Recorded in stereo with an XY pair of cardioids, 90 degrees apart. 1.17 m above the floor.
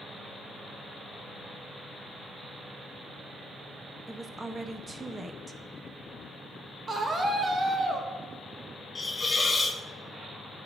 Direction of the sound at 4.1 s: 30° right.